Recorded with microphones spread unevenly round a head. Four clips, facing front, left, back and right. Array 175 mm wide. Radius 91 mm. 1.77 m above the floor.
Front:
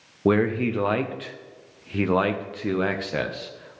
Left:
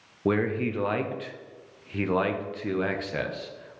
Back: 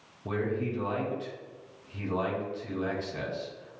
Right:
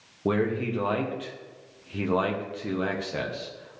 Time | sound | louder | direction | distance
0.2 | a man speaking | even, front 10 dB | straight ahead | 1.1 m